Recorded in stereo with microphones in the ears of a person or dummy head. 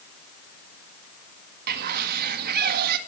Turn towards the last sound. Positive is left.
turn(degrees=-50)  # may be behind; listen again after turning